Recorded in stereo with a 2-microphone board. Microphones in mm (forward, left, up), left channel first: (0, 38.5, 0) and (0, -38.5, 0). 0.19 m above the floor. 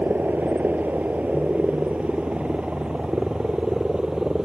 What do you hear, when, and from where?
0.0 s a helicopter: 25° right (ahead or behind); by 4.5 s 10° right (ahead or behind)